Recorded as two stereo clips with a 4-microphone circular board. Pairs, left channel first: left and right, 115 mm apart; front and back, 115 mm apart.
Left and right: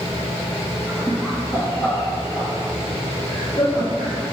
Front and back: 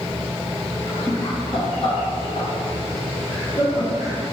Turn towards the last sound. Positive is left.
turn(degrees=45)